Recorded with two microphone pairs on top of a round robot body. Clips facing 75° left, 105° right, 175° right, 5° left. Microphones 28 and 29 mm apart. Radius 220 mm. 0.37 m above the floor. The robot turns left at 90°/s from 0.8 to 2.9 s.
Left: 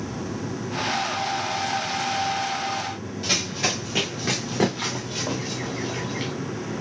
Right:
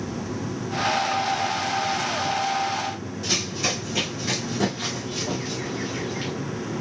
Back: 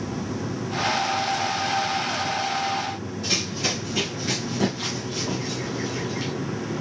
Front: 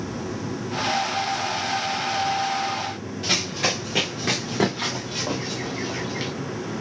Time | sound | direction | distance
3.2 | running footsteps | 15° left | 3 m